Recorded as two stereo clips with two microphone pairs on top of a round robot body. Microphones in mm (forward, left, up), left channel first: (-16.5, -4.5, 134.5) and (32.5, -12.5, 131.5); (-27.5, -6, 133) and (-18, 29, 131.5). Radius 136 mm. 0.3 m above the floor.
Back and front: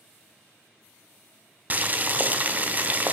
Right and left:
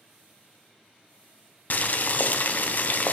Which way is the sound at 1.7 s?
65° right.